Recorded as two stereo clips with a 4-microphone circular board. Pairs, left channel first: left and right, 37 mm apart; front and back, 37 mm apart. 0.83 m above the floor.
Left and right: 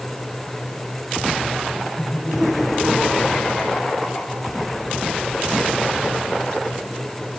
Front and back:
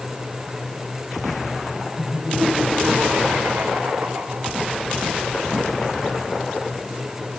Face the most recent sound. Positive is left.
turn(degrees=145)